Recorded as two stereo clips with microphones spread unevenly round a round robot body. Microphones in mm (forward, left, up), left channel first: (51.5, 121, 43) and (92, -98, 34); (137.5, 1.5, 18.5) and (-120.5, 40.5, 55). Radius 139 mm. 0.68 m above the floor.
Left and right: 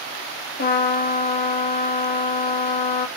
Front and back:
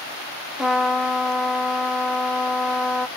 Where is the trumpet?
75° left, 0.6 m.